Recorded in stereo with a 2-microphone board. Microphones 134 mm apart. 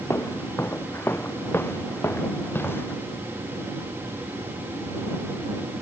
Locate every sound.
0.1 s footsteps: 20° left (ahead or behind); by 2.9 s 15° left (ahead or behind)